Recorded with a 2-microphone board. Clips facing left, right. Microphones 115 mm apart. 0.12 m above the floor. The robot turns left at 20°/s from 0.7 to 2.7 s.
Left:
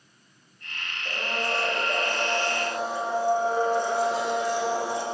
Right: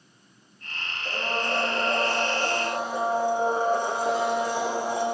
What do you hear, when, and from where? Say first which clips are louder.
1.1 s a blender: right 1 dB; 10° right, 7.5 m; by 5.0 s 45° right, 7.5 m